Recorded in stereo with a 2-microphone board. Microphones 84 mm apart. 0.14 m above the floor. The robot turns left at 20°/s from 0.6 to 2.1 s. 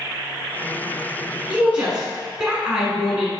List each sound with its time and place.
1.5 s a woman speaking: 15° right (ahead or behind), 1.4 m; by 3.4 s 10° right (ahead or behind), 1.4 m